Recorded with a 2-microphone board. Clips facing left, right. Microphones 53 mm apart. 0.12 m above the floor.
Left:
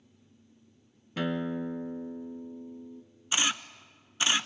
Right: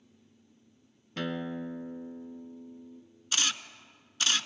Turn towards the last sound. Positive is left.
turn(degrees=20)  # may be behind; listen again after turning